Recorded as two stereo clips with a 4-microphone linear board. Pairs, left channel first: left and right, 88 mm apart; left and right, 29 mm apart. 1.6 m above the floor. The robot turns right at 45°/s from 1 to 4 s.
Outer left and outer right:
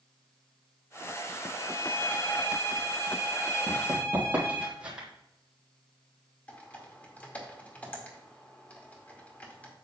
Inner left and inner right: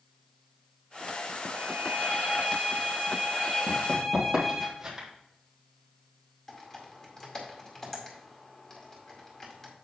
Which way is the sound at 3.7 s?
15° right (ahead or behind).